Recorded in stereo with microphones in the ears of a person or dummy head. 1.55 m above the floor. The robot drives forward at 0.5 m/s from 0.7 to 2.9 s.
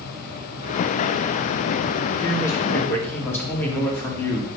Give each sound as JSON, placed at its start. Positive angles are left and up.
{"t": 2.2, "sound": "a man speaking", "side_deg": 5, "distance_m": 1.6}